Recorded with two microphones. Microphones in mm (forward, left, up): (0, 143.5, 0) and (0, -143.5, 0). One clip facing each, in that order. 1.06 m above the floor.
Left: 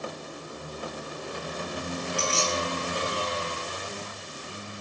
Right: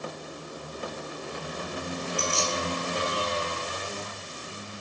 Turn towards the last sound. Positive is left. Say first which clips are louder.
# left 2 dB
turn(degrees=80)